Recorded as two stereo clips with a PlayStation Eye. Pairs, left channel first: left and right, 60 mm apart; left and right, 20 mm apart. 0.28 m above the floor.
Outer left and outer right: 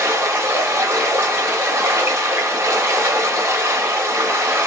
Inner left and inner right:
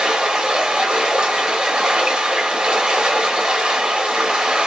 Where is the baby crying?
I don't hear a baby crying.